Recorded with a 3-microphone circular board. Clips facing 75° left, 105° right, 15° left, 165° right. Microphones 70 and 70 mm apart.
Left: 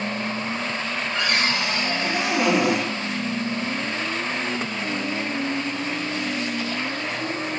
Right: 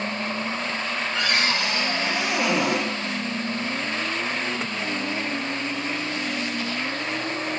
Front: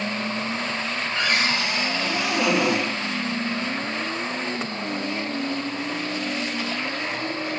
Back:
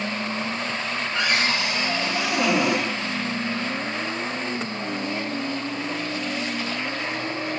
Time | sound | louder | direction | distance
1.1 | a cupboard door | left 1 dB, even | 125° left | 4 m